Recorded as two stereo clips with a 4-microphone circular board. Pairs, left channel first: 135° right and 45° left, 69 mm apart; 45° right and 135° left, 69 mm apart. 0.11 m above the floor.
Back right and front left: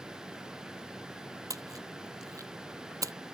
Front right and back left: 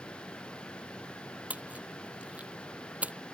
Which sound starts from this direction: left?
A splash, at 1.5 s.